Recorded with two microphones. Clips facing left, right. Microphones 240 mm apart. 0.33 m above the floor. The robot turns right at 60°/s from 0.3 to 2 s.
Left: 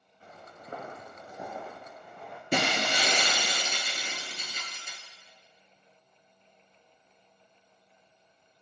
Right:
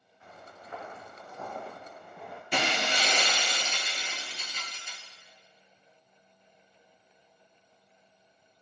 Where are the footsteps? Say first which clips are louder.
Left 1 dB; 35° left (ahead or behind), 1.8 m; by 2.4 s 5° right (ahead or behind), 1.7 m.